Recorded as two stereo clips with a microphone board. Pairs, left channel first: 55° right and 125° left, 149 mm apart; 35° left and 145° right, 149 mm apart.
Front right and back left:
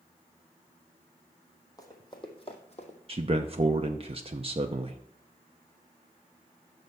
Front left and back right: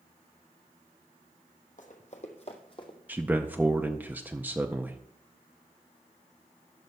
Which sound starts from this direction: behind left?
A man speaking, at 3.1 s.